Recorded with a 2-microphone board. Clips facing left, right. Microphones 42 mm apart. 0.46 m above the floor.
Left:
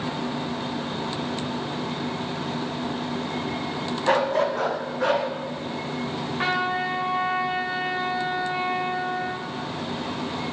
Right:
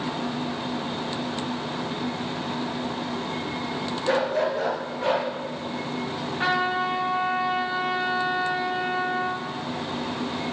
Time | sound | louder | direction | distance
4.0 | a dog barking | left 2 dB | 70° left (ahead or behind) | 1.1 m
6.4 | a trumpet | right 1 dB | 55° left (ahead or behind) | 2 m